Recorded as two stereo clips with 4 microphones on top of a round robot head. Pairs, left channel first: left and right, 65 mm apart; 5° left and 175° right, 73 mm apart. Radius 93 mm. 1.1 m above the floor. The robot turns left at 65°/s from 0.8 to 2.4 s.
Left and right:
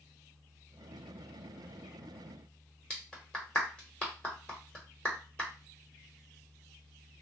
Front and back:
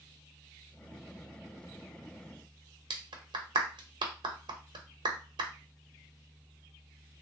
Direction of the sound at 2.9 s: 165° left.